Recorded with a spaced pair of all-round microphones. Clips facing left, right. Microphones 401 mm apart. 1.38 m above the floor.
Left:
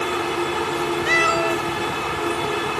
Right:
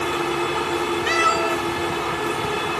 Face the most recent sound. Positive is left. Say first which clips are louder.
# left 1 dB
turn(degrees=-15)  # may be behind; listen again after turning